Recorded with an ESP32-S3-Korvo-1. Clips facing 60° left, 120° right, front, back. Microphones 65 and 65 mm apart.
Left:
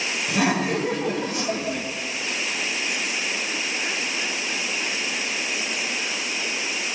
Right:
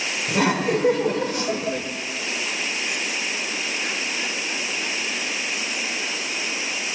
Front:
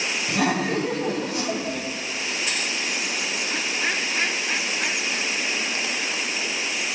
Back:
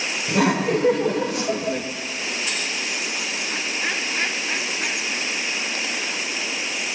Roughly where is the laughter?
Behind.